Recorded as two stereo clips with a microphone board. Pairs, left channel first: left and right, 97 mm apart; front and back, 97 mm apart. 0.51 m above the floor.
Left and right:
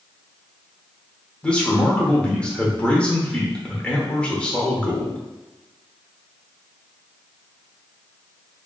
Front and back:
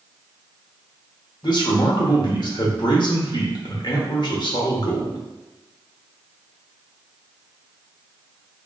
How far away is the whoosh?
No whoosh in this recording.